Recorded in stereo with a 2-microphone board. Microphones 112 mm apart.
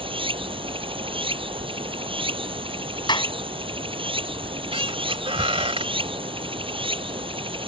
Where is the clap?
40° left (ahead or behind).